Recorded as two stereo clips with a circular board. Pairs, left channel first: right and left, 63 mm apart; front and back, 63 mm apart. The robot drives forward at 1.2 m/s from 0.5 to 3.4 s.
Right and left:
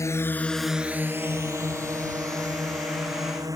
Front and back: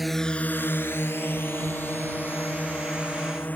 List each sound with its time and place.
0.0 s a drone: 95° right; by 3.6 s 60° left